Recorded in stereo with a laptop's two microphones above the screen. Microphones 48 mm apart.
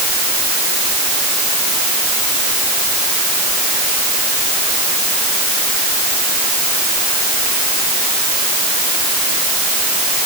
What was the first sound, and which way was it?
Only background noise.